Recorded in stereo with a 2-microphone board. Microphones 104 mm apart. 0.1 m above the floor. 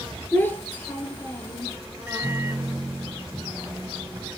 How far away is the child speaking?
About 1.0 m.